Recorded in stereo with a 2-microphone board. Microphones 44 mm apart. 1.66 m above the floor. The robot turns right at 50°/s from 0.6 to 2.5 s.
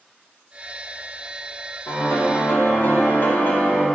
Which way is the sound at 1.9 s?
80° left.